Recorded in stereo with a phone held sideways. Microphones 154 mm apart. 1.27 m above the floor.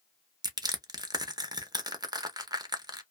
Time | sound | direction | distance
0.4 | crushing | 25° right (ahead or behind) | 0.6 m